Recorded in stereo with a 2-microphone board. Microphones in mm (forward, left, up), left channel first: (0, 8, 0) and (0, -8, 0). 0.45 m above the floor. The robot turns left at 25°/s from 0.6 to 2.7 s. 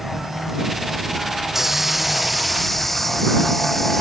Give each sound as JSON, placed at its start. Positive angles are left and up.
{"t": 1.5, "sound": "a hiss", "side_deg": -20}